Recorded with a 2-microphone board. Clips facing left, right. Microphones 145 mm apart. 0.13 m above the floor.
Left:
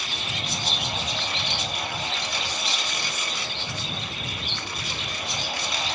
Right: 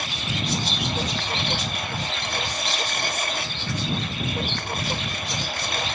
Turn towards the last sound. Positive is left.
turn(degrees=-55)  # may be behind; listen again after turning